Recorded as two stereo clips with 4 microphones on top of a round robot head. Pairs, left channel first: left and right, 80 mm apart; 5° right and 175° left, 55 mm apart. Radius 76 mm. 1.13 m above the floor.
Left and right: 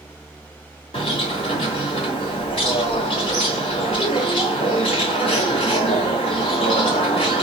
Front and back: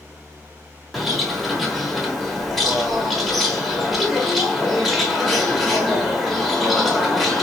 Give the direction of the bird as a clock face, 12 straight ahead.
9 o'clock.